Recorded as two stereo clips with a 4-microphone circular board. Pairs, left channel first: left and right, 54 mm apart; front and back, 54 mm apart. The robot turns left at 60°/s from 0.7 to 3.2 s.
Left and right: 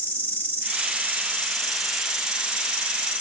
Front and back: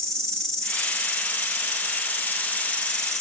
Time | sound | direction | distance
0.0 | an insect | 80° left | 2 m